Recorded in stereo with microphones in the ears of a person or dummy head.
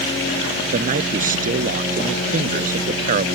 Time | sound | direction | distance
0.7 | a man speaking | 50° right (ahead or behind) | ?